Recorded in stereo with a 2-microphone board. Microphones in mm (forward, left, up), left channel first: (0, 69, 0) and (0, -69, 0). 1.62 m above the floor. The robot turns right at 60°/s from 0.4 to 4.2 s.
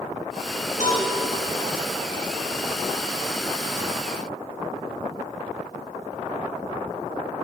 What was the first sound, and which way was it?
A cowbell, 60° left (ahead or behind).